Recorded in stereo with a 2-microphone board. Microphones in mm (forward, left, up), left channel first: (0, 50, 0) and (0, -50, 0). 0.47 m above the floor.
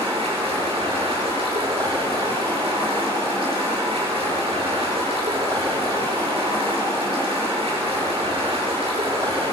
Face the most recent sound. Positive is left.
turn(degrees=-70)  # may be behind; listen again after turning